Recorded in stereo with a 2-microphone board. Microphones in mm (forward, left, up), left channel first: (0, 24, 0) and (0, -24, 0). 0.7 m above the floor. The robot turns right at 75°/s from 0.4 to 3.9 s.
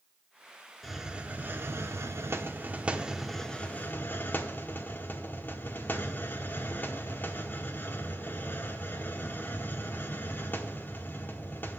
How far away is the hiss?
About 1.0 m.